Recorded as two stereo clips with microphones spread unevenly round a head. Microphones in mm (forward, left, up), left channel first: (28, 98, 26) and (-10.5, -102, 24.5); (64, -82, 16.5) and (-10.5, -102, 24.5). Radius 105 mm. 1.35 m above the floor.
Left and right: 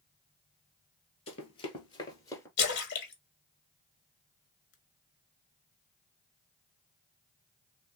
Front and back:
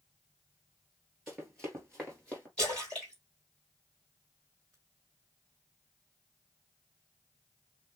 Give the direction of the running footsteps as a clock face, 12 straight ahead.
8 o'clock.